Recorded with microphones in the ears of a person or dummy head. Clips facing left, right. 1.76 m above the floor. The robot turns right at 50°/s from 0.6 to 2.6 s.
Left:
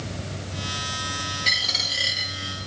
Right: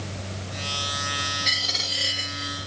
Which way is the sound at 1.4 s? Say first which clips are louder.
Even; 5° right (ahead or behind).